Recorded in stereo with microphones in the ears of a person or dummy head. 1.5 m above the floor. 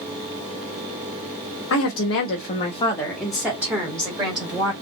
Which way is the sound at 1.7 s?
80° left.